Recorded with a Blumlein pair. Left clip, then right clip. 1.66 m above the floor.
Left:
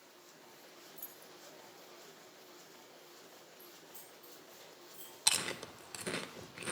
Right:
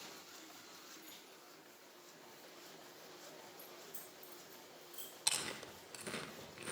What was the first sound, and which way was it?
Keys jangling, 45° left.